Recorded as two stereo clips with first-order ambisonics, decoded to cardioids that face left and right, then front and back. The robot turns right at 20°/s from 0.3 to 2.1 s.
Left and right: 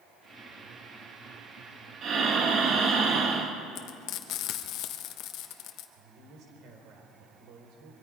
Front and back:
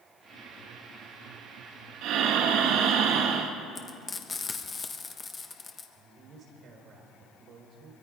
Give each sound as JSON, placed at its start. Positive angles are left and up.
{"t": 2.0, "sound": "breathing", "azimuth_deg": -150, "distance_m": 1.6}
{"t": 3.8, "sound": "frying", "azimuth_deg": 70, "distance_m": 1.3}
{"t": 6.0, "sound": "a woman speaking", "azimuth_deg": -125, "distance_m": 4.5}